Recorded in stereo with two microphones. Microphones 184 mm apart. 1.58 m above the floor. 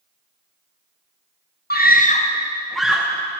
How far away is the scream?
About 0.7 m.